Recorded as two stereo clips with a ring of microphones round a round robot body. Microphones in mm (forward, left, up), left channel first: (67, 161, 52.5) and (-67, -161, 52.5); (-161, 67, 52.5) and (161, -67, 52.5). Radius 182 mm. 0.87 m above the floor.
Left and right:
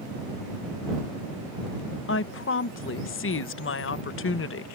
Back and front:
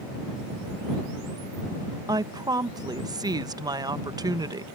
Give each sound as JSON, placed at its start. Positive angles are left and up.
{"t": 2.1, "sound": "a woman speaking", "azimuth_deg": 50}